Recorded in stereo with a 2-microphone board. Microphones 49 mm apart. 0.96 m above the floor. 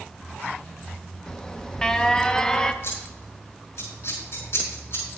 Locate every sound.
1.3 s an alarm: 15° left (ahead or behind), 0.5 m
2.8 s scissors: 60° left (ahead or behind), 5 m